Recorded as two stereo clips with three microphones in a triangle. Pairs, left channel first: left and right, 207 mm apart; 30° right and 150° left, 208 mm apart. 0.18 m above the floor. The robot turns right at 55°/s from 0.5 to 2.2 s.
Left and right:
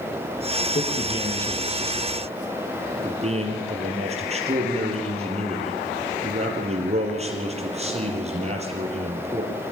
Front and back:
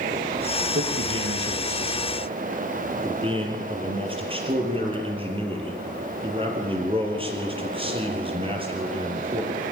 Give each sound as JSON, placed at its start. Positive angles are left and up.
{"t": 0.8, "sound": "a man speaking", "azimuth_deg": 135, "distance_m": 4.5}